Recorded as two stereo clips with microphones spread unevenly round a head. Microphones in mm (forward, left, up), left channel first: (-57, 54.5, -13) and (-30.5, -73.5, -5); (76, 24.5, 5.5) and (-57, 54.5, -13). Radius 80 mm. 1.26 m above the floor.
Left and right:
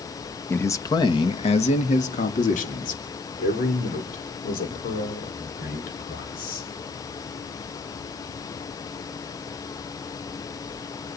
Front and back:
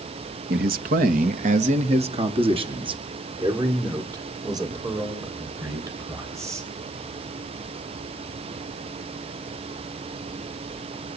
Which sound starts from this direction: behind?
A man speaking, at 0.5 s.